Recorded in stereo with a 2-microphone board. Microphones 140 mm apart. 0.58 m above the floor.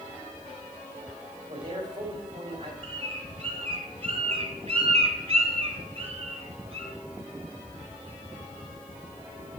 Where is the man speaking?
30° right (ahead or behind), 3 m.